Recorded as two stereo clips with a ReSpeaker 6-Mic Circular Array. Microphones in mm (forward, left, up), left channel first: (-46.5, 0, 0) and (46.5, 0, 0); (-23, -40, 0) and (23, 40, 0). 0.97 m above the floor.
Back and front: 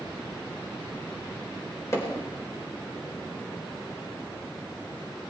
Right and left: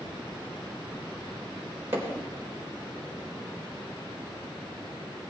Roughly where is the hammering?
Behind left.